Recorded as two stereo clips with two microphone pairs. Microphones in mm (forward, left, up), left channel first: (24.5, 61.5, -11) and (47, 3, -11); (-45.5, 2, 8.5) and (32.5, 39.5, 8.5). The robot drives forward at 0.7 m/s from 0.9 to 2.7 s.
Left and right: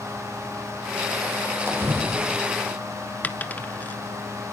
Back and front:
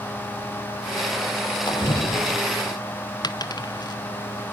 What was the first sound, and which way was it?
A splash, 120° right.